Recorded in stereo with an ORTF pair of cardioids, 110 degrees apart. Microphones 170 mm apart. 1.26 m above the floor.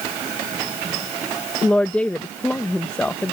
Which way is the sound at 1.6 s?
10° left.